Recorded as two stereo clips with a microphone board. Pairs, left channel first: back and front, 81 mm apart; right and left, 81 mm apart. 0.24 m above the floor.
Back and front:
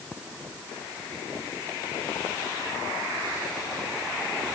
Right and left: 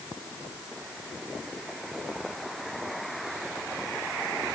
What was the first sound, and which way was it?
Only background noise.